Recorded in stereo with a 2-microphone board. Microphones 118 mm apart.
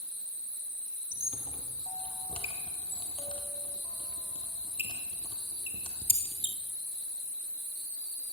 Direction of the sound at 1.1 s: 60° left (ahead or behind).